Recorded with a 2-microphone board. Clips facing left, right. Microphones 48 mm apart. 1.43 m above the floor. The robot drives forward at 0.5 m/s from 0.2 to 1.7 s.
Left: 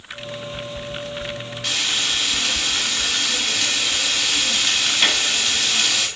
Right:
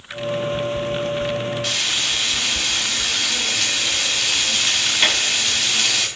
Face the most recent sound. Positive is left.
turn(degrees=0)  # may be behind; listen again after turning